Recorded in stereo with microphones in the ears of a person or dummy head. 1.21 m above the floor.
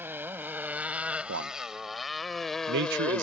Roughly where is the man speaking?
Right.